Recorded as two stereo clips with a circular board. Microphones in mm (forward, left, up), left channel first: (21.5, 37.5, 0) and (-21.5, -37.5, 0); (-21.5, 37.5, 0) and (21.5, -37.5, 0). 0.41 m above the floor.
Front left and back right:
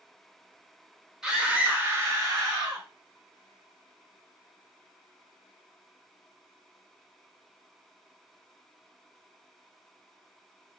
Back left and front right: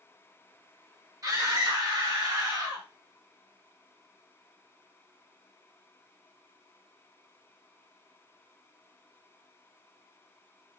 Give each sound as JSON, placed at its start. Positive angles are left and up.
{"t": 1.2, "sound": "a scream", "azimuth_deg": -35, "distance_m": 1.0}